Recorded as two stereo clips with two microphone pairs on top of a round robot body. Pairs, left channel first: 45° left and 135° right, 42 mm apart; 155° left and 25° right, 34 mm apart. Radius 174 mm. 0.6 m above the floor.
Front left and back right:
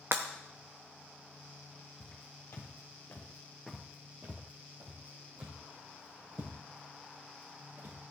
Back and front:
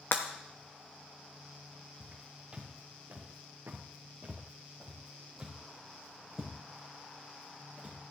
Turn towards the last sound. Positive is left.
turn(degrees=-105)